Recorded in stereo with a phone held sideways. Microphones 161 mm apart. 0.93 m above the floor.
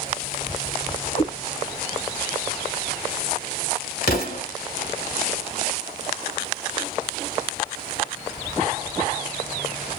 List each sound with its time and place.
1.1 s a cat meowing: 85° left, 2.5 m
4.0 s an explosion: 75° left (ahead or behind), 2.0 m